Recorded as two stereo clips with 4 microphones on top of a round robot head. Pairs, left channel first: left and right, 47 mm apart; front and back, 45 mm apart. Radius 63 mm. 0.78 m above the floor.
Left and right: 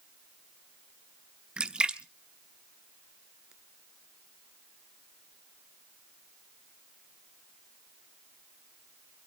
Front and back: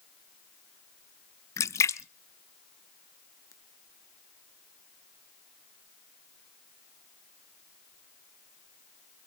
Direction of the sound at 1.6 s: 15° right.